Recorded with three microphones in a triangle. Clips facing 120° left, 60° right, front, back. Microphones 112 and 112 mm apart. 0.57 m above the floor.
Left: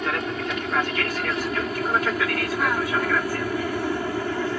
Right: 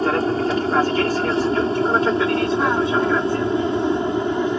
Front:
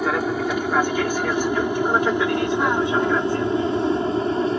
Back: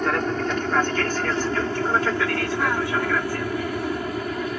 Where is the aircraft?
75° right; by 4.6 s 15° right.